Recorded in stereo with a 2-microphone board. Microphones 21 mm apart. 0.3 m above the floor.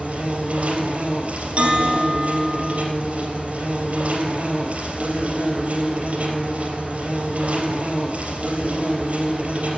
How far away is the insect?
About 3 m.